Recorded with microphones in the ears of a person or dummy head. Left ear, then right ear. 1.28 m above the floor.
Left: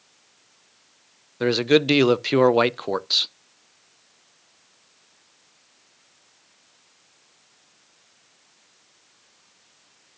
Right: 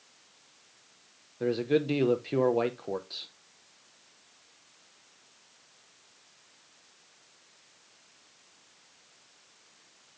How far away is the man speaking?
About 0.5 m.